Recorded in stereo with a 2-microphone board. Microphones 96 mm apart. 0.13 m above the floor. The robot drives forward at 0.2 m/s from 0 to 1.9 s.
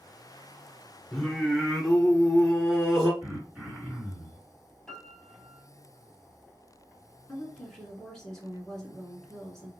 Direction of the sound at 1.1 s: 5° left (ahead or behind).